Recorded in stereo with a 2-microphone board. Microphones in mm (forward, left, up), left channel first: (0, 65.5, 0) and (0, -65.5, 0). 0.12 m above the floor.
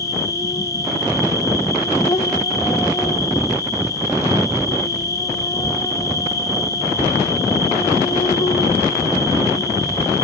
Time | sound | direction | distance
0.0 | an insect | 25° left (ahead or behind) | 2.5 m